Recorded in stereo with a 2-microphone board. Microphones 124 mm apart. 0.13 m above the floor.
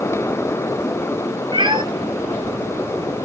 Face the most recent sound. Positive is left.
turn(degrees=-40)  # may be behind; listen again after turning